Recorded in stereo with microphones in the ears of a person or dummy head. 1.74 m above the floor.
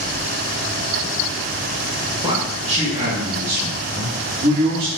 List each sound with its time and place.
2.2 s a man speaking: 30° right (ahead or behind), 2.5 m; by 4.9 s 65° right (ahead or behind), 4 m